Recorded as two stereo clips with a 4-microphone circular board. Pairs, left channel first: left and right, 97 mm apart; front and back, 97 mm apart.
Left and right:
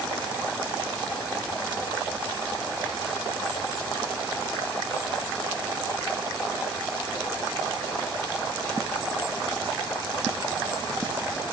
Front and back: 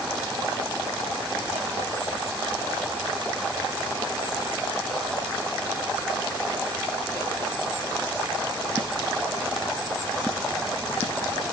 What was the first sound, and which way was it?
Only background noise.